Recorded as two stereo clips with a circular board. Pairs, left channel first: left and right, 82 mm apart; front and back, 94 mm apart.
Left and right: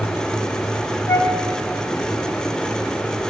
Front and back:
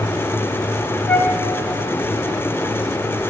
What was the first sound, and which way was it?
A flute, 60° left.